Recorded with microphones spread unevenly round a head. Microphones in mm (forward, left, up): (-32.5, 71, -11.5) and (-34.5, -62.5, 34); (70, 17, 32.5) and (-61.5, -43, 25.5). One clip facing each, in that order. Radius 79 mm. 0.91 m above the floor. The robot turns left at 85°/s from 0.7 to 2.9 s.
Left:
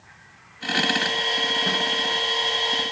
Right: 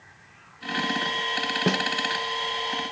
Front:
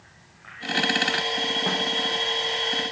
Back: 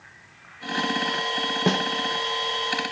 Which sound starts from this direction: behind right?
A snare drum, at 1.7 s.